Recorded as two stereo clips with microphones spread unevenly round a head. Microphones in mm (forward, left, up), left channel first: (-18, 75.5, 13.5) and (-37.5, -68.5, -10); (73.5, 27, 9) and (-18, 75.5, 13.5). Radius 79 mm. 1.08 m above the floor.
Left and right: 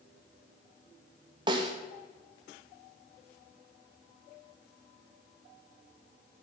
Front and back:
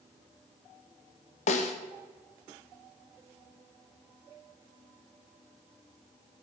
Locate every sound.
1.5 s a snare drum: 35° right, 1.0 m